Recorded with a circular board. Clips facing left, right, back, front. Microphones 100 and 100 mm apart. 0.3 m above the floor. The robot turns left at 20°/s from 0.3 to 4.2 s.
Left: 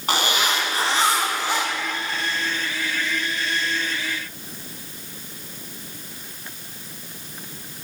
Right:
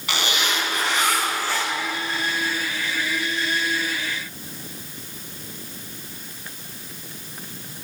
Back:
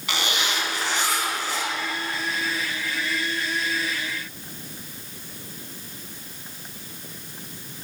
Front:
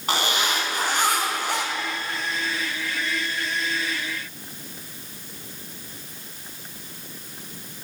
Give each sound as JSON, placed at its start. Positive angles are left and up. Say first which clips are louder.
{"t": 0.1, "sound": "a zipper", "louder": "left 3 dB, front 3 dB", "azimuth_deg": 45, "distance_m": 3.0}